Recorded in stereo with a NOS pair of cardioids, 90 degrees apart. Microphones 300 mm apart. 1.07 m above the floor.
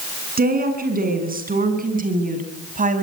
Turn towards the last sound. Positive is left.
turn(degrees=-25)